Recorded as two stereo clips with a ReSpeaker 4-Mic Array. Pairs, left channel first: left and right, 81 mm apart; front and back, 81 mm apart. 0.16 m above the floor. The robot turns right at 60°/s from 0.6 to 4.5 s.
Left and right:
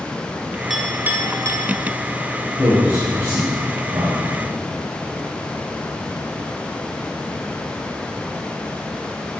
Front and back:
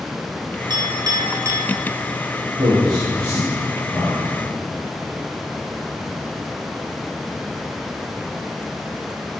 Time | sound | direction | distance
0.7 | a clink | 175° right | 1.9 m
2.6 | a man speaking | straight behind | 3 m